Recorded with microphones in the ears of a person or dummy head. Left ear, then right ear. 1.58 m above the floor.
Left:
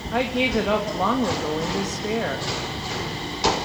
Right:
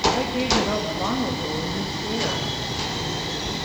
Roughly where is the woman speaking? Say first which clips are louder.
Even; left.